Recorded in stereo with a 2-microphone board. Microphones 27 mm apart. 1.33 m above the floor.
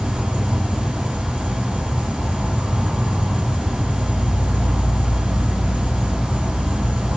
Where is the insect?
75° right (ahead or behind), 1.0 m.